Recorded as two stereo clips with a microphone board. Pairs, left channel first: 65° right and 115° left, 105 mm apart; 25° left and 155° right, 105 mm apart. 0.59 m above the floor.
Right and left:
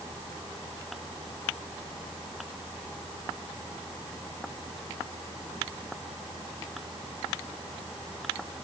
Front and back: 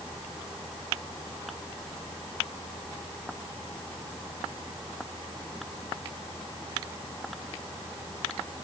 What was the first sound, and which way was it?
Only background noise.